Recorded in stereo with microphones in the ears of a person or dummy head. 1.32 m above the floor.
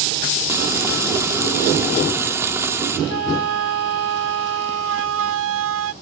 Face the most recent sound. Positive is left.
turn(degrees=-80)